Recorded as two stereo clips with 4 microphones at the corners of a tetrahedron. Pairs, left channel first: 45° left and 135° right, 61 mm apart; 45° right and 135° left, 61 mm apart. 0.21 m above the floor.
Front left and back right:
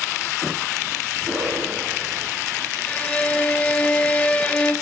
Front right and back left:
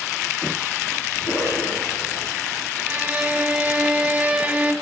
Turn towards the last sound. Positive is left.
turn(degrees=90)